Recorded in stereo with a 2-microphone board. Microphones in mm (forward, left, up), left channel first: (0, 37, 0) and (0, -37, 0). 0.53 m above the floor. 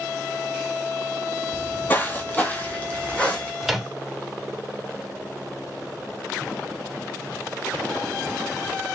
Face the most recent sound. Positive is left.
turn(degrees=0)  # may be behind; listen again after turning